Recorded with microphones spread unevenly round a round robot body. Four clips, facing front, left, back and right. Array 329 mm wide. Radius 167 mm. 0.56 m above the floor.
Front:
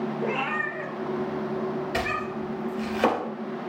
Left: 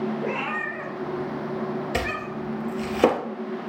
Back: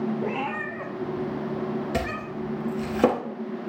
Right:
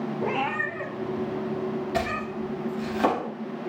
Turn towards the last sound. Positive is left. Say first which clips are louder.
# even, front 1 dB
turn(degrees=160)